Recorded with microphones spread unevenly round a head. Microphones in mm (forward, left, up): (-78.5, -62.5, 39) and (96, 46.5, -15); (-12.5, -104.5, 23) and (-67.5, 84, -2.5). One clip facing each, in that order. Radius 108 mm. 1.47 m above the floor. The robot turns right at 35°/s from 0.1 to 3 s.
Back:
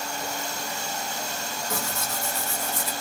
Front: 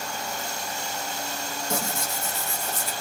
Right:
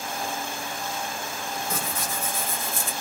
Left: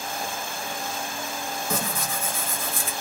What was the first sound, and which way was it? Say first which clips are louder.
Tearing paper: front 3 dB, left 2 dB; 95° left.